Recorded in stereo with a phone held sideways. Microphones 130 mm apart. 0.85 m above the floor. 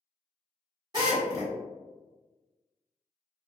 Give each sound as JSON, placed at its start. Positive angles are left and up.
{"t": 0.9, "sound": "a drill", "side_deg": -30, "distance_m": 1.3}